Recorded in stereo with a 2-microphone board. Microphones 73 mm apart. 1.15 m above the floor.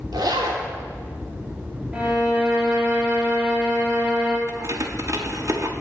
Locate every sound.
0.1 s a zipper: 85° right, 3 m
1.9 s a violin: 20° right (ahead or behind), 3 m
4.5 s keys jangling: 50° right (ahead or behind), 1.4 m